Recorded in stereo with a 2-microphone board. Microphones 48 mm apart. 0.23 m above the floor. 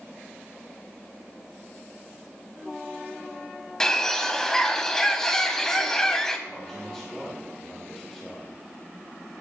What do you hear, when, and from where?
3.8 s a bird: 10° left (ahead or behind), 1.4 m
6.5 s a man speaking: 10° left (ahead or behind), 6 m